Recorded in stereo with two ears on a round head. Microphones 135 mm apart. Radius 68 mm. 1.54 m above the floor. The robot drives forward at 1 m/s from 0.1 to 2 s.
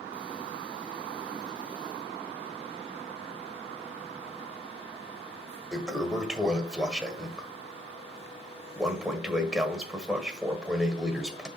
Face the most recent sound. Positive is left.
turn(degrees=-5)  # may be behind; listen again after turning